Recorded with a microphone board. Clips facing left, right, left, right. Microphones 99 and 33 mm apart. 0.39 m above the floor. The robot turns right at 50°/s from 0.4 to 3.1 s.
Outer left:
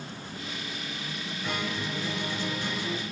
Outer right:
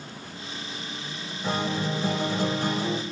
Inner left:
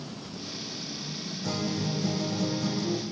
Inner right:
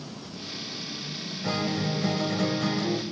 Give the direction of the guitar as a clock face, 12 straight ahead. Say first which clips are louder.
Outer right 6 dB, inner right 3 dB; 5 o'clock.